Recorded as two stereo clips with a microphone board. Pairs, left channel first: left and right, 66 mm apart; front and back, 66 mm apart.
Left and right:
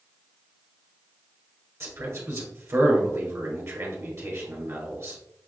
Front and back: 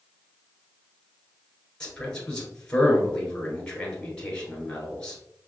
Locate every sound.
1.8 s a man speaking: 70° right, 1.4 m